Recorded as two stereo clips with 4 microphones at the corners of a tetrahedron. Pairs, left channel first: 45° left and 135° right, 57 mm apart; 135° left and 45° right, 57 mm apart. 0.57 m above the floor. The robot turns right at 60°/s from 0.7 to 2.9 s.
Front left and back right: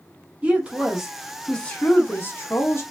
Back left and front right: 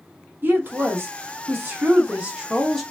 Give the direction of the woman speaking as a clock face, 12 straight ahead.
2 o'clock.